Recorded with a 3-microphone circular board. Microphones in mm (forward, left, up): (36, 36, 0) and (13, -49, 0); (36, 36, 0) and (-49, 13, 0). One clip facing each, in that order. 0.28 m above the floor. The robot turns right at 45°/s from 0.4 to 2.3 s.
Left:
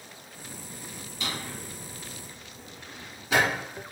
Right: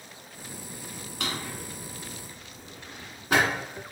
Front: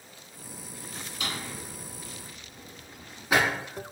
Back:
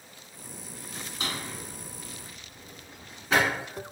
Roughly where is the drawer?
Behind right.